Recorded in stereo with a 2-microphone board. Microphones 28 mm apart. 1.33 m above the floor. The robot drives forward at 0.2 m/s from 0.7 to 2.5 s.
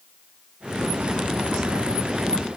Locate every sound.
Only background noise.